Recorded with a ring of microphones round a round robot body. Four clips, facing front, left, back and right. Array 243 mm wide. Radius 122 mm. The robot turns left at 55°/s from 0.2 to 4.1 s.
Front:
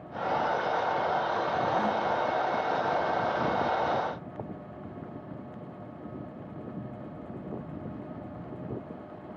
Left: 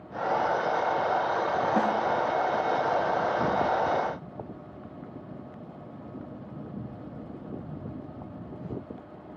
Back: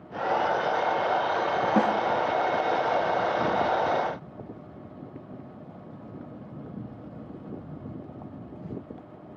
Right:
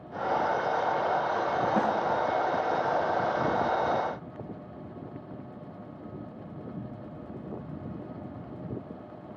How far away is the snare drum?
About 1.0 m.